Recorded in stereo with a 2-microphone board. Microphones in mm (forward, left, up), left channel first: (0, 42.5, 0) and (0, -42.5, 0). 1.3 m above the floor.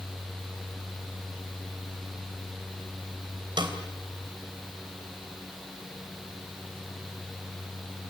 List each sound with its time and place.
3.6 s a snare drum: 65° right (ahead or behind), 3 m